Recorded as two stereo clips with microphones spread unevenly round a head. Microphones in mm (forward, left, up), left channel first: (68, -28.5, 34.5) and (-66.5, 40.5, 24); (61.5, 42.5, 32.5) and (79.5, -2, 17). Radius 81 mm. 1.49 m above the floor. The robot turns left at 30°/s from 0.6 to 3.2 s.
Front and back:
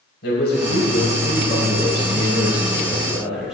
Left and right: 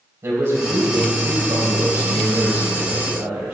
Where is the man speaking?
40° right, 4.5 m; by 3.5 s 120° right, 4.5 m.